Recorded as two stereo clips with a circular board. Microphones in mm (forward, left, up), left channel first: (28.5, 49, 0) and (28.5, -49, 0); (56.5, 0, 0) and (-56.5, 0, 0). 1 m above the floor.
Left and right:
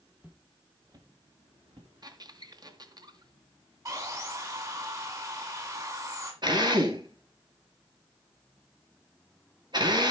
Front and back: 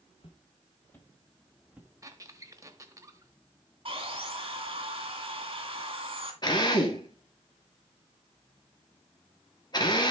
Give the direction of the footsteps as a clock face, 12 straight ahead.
1 o'clock.